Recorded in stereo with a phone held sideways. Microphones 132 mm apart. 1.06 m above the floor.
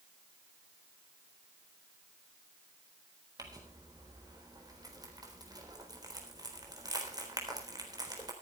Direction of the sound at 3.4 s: 30° right (ahead or behind).